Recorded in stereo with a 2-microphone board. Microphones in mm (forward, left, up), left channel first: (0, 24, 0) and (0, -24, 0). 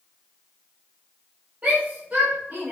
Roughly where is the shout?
Right.